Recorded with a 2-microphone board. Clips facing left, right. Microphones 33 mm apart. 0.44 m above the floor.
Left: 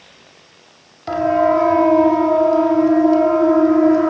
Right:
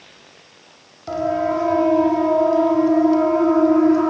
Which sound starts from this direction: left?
A siren, at 1.1 s.